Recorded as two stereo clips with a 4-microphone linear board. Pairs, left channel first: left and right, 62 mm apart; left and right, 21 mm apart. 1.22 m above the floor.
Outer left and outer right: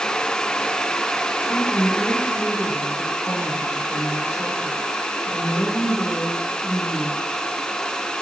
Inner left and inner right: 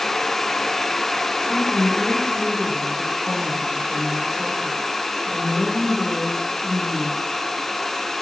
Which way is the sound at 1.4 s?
30° left (ahead or behind).